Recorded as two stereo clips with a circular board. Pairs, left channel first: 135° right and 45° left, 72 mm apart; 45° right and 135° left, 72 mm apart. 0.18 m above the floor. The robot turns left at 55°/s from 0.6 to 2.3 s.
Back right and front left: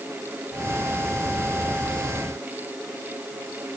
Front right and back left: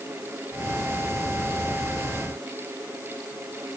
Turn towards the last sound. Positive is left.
No sound to turn to.